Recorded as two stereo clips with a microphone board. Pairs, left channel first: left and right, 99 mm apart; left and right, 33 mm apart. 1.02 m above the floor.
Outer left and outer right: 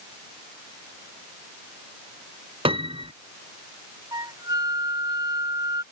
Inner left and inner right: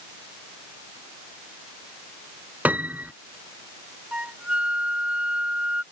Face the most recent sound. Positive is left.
turn(degrees=-40)  # may be behind; listen again after turning